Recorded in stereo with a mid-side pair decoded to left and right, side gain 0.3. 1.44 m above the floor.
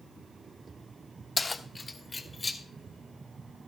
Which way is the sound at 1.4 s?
45° left.